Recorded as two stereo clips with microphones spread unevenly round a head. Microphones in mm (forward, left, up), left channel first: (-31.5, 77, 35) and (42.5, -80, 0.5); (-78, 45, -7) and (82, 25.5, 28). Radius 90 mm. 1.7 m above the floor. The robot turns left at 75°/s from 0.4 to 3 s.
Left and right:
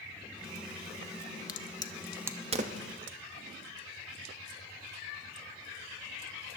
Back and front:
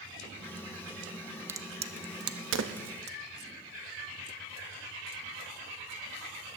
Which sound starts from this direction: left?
A crack, at 1.5 s.